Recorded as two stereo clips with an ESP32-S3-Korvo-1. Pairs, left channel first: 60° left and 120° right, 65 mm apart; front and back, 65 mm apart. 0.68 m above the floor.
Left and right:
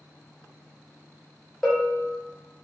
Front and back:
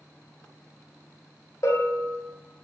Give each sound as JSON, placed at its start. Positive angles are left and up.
{"t": 1.6, "sound": "a bell", "azimuth_deg": -25, "distance_m": 2.0}